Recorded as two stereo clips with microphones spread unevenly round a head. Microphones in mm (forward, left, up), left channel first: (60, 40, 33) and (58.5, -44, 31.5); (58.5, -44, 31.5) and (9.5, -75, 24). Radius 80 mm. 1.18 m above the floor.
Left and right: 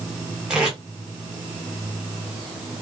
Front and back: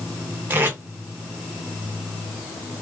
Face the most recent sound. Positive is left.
turn(degrees=-170)